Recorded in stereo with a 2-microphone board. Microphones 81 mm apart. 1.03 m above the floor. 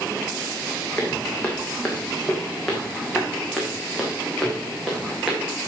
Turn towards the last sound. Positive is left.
turn(degrees=0)  # may be behind; listen again after turning